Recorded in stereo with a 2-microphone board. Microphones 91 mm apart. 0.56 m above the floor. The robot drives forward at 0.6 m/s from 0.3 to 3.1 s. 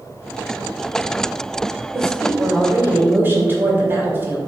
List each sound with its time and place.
1.9 s a woman speaking: 35° right (ahead or behind), 1.9 m; by 4.4 s 25° right (ahead or behind), 2.5 m